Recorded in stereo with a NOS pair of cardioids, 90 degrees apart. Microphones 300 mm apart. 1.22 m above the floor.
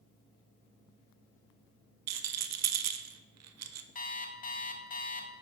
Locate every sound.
2.1 s a rattle: 60° right, 0.6 m
4.0 s an alarm clock: 30° left, 0.9 m